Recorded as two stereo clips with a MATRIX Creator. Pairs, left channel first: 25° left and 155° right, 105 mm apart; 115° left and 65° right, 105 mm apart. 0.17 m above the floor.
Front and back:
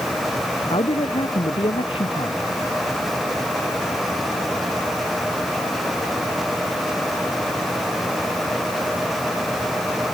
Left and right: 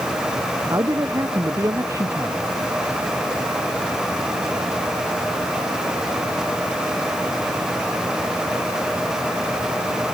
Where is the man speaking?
10° right.